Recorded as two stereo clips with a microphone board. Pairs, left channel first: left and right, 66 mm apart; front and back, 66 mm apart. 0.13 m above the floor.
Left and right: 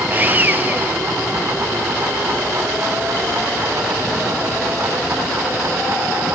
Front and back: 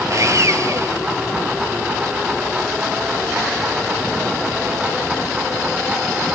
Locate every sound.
0.1 s sawing: 150° right, 1.4 m